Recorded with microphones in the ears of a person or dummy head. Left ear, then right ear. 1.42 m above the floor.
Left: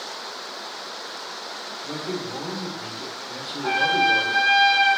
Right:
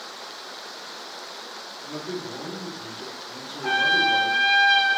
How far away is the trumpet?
About 3 m.